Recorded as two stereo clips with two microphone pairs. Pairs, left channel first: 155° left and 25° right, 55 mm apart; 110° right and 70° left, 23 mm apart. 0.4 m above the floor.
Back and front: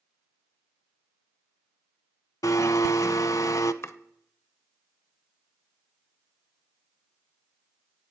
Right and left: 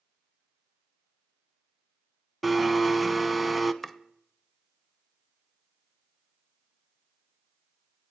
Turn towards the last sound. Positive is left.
turn(degrees=175)